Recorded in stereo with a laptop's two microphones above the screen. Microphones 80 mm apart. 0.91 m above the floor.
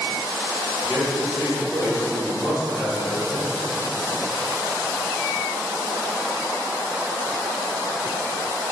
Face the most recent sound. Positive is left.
turn(degrees=55)  # may be behind; listen again after turning